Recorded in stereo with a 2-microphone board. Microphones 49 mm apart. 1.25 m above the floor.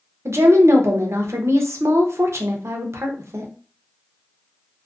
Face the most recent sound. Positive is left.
turn(degrees=-70)  # may be behind; listen again after turning